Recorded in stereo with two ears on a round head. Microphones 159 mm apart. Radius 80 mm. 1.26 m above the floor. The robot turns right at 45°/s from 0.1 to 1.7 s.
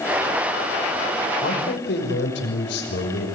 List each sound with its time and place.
1.4 s a man speaking: 55° left (ahead or behind), 5.5 m; by 3.3 s 65° left (ahead or behind), 5.5 m